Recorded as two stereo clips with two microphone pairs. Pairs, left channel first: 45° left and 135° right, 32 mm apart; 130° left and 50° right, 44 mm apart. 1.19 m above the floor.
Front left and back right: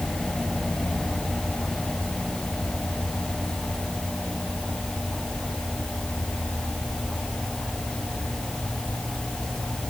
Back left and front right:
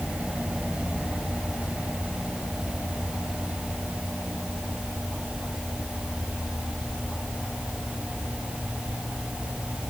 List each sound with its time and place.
Only background noise.